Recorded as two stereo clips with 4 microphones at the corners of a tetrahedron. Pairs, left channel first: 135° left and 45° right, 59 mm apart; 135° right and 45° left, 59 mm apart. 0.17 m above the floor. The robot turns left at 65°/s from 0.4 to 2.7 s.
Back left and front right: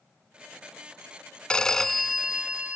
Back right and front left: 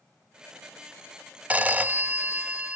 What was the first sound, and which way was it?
A phone ringing, 80° left.